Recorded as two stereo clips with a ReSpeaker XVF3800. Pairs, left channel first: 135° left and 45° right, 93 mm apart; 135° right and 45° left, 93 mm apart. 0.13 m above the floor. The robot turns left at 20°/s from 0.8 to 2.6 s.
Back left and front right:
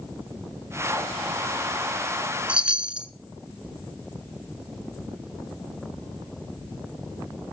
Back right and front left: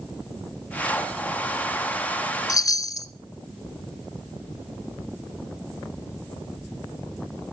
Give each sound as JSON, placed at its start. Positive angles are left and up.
{"t": 2.5, "sound": "a chime", "azimuth_deg": -115, "distance_m": 0.7}